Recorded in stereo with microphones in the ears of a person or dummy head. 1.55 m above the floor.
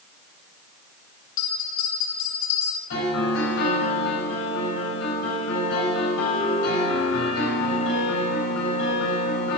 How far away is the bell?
About 2.5 m.